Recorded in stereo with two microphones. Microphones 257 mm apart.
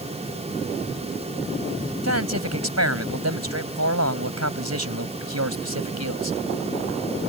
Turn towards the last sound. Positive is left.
turn(degrees=-80)